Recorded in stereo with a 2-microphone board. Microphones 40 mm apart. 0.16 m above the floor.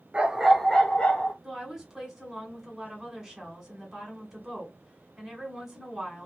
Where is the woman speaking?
10° right (ahead or behind), 1.5 m.